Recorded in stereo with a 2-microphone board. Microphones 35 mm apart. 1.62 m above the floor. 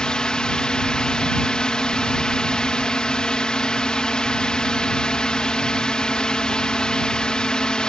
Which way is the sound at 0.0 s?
25° left (ahead or behind).